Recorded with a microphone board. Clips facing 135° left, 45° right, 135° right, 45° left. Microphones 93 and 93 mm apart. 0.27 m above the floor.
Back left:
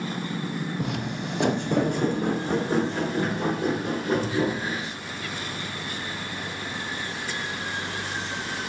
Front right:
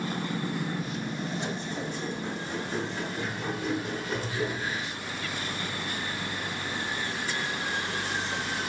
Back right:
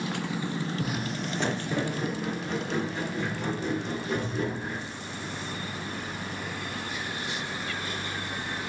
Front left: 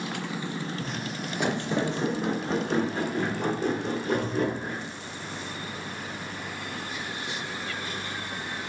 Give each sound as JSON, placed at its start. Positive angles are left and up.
{"t": 0.8, "sound": "footsteps", "azimuth_deg": 150, "distance_m": 0.6}